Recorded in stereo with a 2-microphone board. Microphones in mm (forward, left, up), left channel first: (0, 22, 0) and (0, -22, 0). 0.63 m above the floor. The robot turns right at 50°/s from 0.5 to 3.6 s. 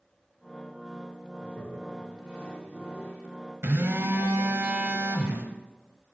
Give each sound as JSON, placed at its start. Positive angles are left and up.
{"t": 1.4, "sound": "a toilet flushing", "side_deg": 45, "distance_m": 2.5}
{"t": 3.6, "sound": "a phone buzzing", "side_deg": -75, "distance_m": 0.9}